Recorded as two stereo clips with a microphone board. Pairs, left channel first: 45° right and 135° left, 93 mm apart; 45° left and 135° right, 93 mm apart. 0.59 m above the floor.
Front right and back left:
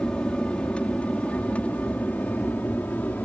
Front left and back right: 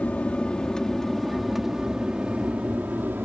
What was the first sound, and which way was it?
An aircraft, 15° left.